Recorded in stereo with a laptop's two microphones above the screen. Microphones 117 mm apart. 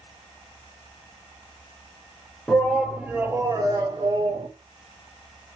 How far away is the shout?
About 0.8 m.